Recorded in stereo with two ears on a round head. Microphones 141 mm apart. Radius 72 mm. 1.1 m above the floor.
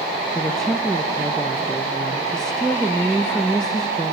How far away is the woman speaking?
About 0.7 m.